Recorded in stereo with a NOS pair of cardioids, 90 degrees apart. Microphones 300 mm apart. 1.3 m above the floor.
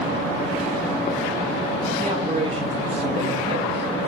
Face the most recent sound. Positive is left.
turn(degrees=-25)